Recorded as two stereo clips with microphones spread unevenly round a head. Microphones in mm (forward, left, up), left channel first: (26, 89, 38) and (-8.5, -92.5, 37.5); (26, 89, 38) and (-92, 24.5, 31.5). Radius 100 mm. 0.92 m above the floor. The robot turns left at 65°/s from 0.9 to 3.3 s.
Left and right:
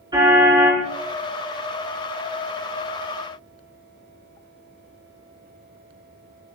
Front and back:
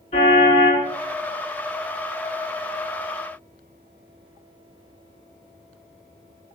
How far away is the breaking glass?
I don't hear breaking glass.